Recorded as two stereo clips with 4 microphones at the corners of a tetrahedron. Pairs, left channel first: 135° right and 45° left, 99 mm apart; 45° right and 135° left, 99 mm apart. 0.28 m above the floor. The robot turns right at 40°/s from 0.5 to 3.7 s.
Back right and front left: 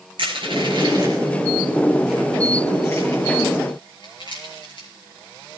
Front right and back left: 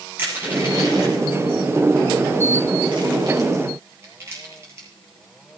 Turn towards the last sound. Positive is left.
turn(degrees=-165)